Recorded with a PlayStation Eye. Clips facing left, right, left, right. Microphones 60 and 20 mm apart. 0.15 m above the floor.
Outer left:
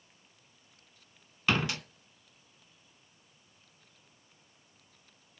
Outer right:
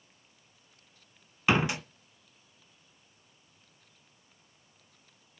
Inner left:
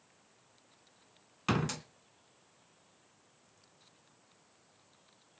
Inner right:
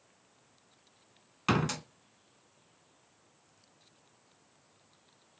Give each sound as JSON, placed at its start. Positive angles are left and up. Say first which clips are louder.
{"t": 1.5, "sound": "a door slam", "louder": "outer right 3 dB, inner right 3 dB", "side_deg": -20, "distance_m": 0.8}